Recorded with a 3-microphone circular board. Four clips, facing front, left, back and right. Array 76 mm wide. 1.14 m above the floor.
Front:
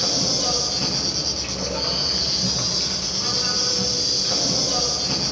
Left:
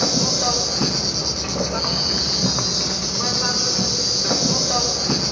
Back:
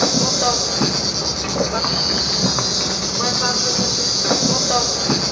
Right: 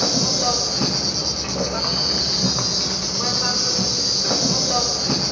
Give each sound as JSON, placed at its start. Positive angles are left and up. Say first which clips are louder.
{"t": 0.0, "sound": "an insect", "louder": "even, back 8 dB", "azimuth_deg": 180, "distance_m": 0.8}